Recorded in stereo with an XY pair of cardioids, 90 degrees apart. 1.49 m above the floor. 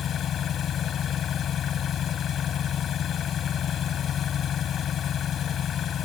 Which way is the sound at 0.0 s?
70° left.